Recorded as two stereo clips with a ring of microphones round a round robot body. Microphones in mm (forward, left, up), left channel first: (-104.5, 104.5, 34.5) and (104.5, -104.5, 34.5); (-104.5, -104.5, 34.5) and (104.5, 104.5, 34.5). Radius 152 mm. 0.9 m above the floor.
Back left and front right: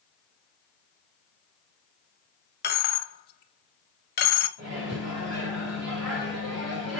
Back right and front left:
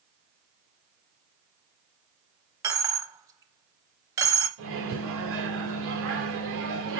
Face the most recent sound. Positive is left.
turn(degrees=-5)